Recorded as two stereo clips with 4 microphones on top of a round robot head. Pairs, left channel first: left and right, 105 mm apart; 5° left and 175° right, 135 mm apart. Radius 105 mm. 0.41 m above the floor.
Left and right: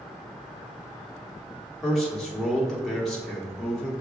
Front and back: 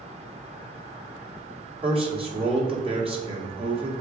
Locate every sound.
1.8 s a man speaking: 175° left, 1.8 m